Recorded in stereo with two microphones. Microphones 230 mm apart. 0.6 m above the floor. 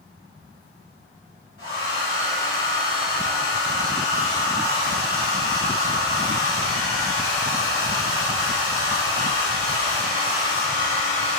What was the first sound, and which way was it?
A hair dryer, 65° right (ahead or behind).